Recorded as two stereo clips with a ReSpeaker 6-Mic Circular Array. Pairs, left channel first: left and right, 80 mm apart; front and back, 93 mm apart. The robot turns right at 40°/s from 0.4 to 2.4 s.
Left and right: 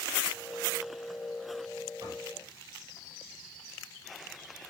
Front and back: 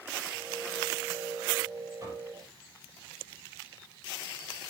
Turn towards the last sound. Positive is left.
turn(degrees=-110)